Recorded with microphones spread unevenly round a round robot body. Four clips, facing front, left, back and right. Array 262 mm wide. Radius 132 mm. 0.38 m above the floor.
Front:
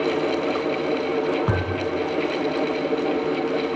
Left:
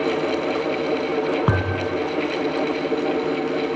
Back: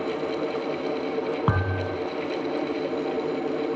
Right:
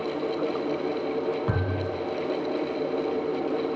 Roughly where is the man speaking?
I don't hear a man speaking.